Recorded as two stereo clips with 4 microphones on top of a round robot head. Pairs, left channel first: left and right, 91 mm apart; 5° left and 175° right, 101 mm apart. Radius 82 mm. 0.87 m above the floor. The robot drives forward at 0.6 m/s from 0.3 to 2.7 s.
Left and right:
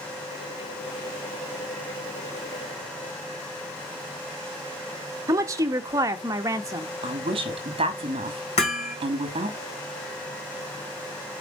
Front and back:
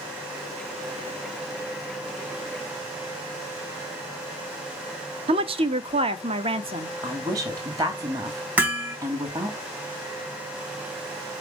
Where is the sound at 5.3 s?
150° right, 0.9 m.